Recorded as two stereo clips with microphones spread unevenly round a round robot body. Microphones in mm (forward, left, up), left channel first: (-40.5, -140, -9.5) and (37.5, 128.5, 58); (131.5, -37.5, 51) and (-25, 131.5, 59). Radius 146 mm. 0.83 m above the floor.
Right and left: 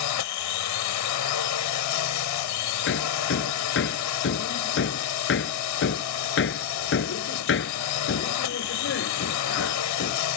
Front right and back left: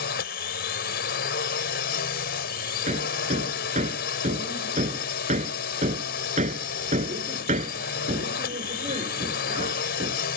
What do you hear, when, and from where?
0.0 s a drone: 100° right
2.9 s hammering: 160° right